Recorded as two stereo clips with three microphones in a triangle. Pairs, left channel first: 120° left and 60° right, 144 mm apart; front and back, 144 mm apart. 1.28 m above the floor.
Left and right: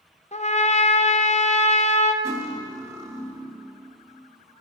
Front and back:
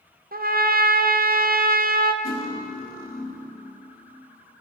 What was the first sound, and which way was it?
A trumpet, 165° left.